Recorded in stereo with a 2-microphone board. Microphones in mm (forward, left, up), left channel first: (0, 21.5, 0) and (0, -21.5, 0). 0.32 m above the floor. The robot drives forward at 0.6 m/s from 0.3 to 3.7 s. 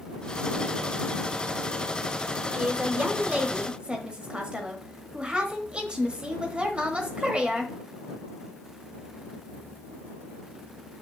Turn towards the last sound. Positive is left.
turn(degrees=-25)  # may be behind; listen again after turning